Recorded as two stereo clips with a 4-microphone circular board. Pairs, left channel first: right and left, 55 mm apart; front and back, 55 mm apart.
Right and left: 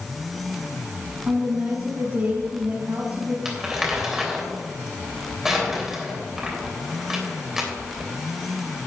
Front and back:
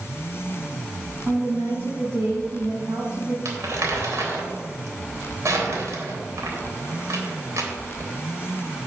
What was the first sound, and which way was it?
A woman speaking, 135° left.